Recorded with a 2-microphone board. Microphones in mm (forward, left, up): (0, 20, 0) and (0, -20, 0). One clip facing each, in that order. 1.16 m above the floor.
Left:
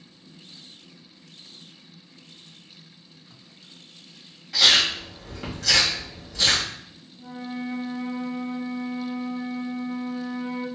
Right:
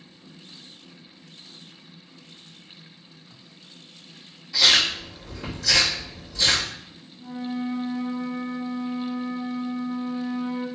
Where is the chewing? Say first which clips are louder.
Even; 70° left (ahead or behind), 1.8 m.